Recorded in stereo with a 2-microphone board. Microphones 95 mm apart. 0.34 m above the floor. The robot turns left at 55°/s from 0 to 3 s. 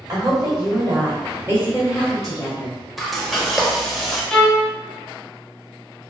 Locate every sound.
0.1 s a woman speaking: 55° right, 1.0 m; by 2.8 s 155° left, 1.0 m
3.0 s frying: centre (ahead or behind), 0.5 m
4.3 s a violin: 10° left (ahead or behind), 0.5 m